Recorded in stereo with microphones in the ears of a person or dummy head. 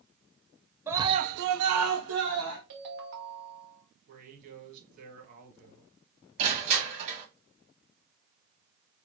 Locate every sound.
0.9 s a scream: 15° right (ahead or behind), 0.7 m; by 2.6 s 55° right (ahead or behind), 1.3 m
2.7 s a ringtone: 55° right (ahead or behind), 1.2 m
4.1 s a man speaking: 50° right (ahead or behind), 1.5 m
6.4 s crushing: 35° right (ahead or behind), 1.4 m